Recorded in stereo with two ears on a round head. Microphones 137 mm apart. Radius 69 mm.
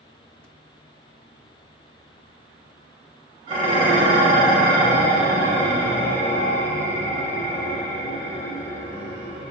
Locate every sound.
3.5 s dishes clattering: 35° right (ahead or behind), 1.4 m